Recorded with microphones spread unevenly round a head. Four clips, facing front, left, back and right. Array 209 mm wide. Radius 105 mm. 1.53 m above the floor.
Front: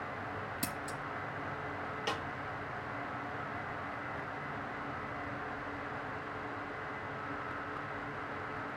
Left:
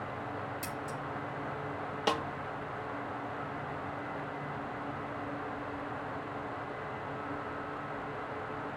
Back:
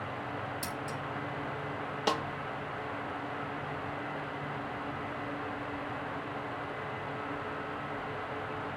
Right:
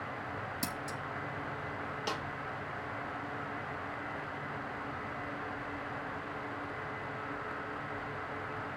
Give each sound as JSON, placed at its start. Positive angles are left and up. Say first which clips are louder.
{"t": 0.6, "sound": "scissors", "louder": "even, back 2 dB", "azimuth_deg": -60, "distance_m": 2.5}
{"t": 2.1, "sound": "a snare drum", "louder": "left 8 dB, back 8 dB", "azimuth_deg": 135, "distance_m": 1.0}